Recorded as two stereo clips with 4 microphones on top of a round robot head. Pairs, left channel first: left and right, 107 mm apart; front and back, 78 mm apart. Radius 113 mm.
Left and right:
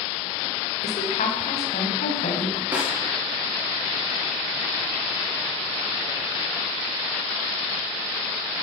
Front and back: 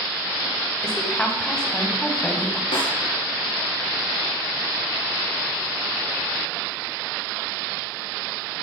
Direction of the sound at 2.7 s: 15° right.